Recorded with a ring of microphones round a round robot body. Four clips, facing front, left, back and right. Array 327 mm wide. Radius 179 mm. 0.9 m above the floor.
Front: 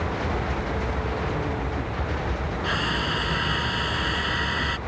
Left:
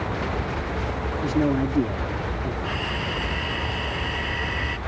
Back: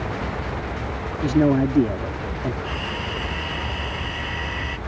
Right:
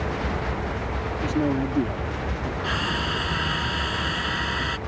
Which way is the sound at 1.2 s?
175° left.